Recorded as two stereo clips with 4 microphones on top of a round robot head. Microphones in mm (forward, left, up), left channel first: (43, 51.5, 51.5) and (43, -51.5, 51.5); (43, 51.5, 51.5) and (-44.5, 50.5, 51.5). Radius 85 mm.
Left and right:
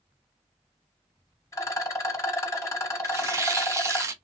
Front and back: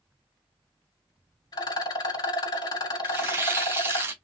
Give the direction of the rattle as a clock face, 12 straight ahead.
11 o'clock.